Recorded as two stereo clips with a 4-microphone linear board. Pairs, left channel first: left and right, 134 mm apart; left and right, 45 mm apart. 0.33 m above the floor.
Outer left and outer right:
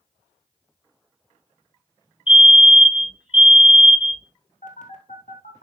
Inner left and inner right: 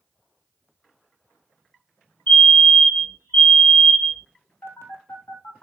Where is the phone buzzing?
70° left (ahead or behind), 1.5 m.